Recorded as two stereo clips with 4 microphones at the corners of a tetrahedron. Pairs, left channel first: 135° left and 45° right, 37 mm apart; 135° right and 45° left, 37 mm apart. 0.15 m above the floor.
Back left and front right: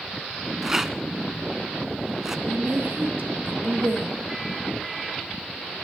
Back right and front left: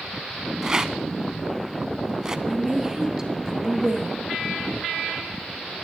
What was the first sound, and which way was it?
A rattle, 10° left.